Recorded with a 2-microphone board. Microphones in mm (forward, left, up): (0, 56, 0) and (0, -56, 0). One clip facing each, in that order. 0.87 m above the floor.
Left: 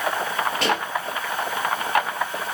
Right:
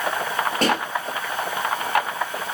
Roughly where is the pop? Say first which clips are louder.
Right 3 dB; right.